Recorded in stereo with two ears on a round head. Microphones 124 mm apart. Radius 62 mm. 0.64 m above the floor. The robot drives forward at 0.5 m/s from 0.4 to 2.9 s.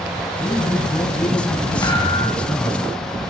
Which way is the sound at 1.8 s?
25° left (ahead or behind).